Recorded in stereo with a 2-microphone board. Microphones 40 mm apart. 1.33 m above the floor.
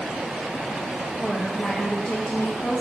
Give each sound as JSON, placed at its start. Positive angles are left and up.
{"t": 1.2, "sound": "a woman speaking", "side_deg": 20, "distance_m": 1.3}